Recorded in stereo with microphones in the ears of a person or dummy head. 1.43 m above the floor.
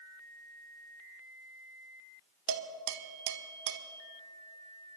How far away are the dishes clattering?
About 1.1 m.